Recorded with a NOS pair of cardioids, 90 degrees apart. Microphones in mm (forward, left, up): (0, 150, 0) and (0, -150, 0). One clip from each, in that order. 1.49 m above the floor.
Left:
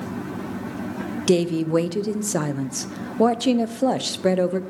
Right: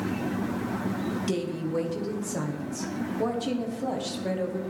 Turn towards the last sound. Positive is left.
turn(degrees=60)